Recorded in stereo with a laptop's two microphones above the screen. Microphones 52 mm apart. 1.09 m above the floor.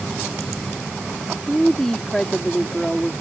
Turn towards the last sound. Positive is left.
turn(degrees=15)  # may be behind; listen again after turning